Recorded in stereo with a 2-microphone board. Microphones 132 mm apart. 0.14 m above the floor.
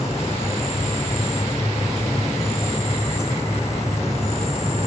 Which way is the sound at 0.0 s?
55° left (ahead or behind).